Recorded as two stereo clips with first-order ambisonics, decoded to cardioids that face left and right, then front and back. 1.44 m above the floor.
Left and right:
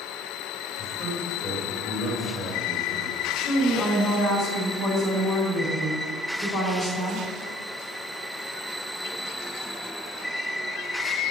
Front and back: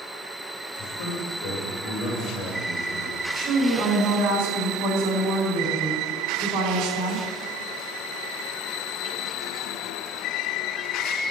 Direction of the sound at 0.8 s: 30° left.